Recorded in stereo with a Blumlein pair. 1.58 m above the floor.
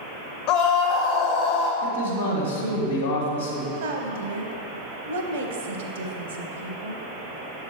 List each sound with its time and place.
0.5 s a scream: 50° left, 1.2 m
1.8 s a man speaking: 65° left, 1.3 m
3.7 s a woman speaking: 60° right, 0.8 m